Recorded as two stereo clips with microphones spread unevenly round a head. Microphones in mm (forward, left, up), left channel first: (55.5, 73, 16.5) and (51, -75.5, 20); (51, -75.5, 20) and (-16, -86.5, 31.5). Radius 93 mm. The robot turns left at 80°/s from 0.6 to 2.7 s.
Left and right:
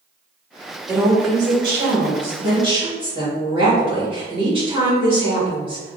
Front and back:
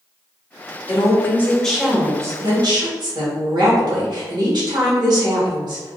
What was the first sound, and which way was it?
A woman speaking, 10° right.